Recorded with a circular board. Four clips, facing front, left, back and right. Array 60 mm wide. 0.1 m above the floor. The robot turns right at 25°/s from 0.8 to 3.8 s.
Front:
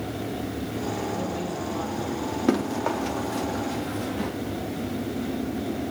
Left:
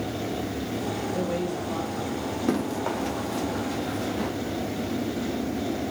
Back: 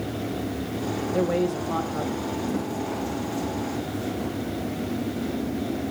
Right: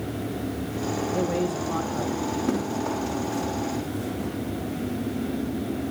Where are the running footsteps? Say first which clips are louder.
Even, front 4 dB; 10° left, 6.5 m; by 4.3 s 45° left, 5 m.